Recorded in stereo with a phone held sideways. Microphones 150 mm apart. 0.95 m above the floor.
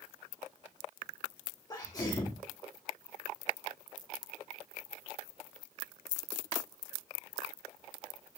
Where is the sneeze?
25° left (ahead or behind), 2.5 m.